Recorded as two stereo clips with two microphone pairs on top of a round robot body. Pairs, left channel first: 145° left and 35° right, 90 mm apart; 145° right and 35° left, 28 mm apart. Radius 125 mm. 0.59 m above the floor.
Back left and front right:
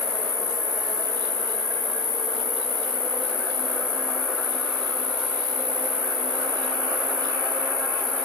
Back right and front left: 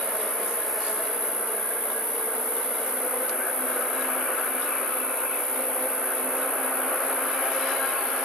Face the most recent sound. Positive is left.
turn(degrees=60)